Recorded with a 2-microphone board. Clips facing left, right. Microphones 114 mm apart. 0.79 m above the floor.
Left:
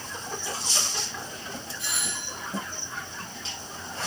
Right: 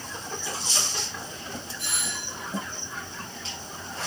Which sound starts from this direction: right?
A doorbell, at 1.8 s.